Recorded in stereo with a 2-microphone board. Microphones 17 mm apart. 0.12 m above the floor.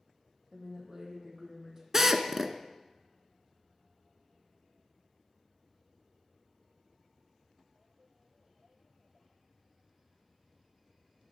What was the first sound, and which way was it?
A woman speaking, 45° right (ahead or behind).